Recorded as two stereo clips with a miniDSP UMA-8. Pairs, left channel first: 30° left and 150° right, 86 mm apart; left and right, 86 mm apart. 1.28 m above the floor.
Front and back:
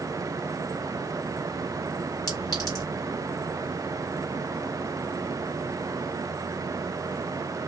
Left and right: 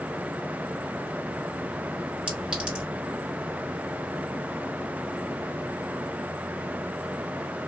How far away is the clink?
About 1.9 m.